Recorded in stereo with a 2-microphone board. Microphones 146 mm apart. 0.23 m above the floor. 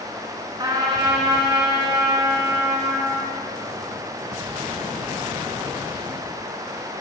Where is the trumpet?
30° right (ahead or behind), 3.5 m.